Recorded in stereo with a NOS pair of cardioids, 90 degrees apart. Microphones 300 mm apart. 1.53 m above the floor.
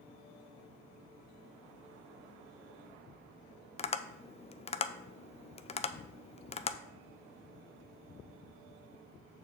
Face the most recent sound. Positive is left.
turn(degrees=20)